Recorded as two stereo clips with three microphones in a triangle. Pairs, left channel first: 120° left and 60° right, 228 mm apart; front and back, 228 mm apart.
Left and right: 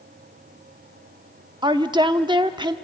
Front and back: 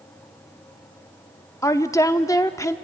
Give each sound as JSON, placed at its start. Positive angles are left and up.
{"t": 1.6, "sound": "a woman speaking", "azimuth_deg": -45, "distance_m": 0.7}